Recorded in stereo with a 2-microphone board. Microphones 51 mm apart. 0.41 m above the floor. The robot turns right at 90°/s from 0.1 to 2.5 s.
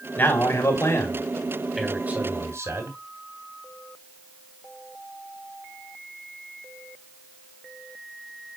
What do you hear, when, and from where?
0.2 s a man speaking: 45° left, 2.5 m; by 3.0 s 105° right, 2.5 m